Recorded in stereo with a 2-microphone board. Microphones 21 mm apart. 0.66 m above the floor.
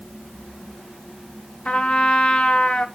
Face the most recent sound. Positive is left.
turn(degrees=70)  # may be behind; listen again after turning